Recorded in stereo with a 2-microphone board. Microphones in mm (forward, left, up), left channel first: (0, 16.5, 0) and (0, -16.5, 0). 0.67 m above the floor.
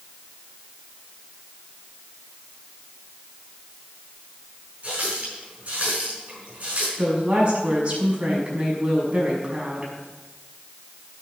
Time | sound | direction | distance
4.8 | a running tap | 50° right (ahead or behind) | 5 m
7.0 | a woman speaking | 45° right (ahead or behind) | 6 m